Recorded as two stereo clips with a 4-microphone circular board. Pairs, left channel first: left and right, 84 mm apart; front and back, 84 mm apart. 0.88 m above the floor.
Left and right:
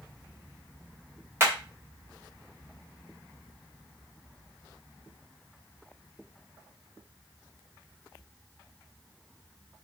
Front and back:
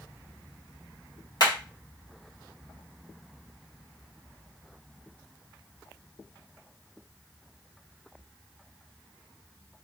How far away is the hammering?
About 1.4 m.